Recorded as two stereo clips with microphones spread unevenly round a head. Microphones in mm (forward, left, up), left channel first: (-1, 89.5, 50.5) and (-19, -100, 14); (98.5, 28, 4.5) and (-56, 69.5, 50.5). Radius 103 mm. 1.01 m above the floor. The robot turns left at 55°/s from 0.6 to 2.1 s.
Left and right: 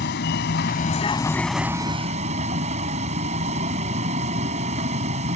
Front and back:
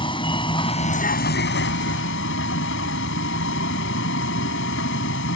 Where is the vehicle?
50° left; by 5.4 s 35° right.